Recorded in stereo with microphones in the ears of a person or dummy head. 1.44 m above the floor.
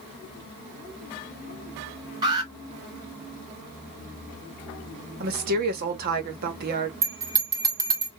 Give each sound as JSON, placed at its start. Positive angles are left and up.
{"t": 2.2, "sound": "an alarm", "side_deg": -25, "distance_m": 2.5}
{"t": 5.2, "sound": "a woman speaking", "side_deg": -55, "distance_m": 1.3}
{"t": 7.0, "sound": "a bell", "side_deg": -25, "distance_m": 1.2}